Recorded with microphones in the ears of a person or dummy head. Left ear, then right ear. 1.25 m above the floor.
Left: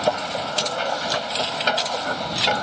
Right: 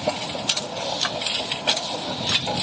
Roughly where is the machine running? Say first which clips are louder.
Left 2 dB; left.